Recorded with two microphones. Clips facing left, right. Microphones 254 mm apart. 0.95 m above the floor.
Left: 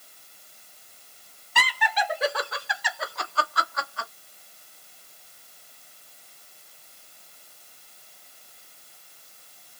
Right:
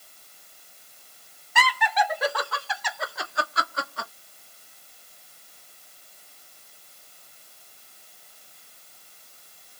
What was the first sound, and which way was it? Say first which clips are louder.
Laughter: right 3 dB; 35° left (ahead or behind).